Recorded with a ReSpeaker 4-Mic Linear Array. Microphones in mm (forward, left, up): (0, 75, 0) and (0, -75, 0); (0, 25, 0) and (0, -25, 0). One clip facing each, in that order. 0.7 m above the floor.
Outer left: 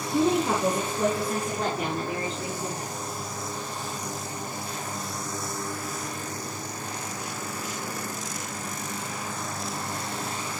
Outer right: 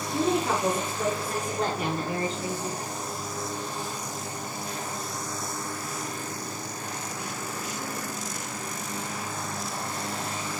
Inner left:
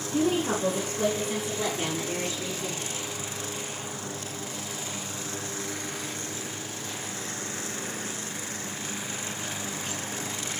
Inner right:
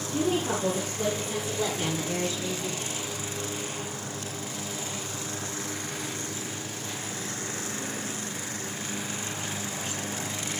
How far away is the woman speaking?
About 7.5 m.